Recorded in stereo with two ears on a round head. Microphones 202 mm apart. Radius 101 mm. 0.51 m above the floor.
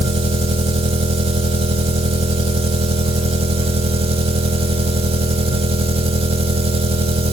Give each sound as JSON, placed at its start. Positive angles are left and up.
{"t": 0.0, "sound": "an engine running", "side_deg": -25, "distance_m": 0.7}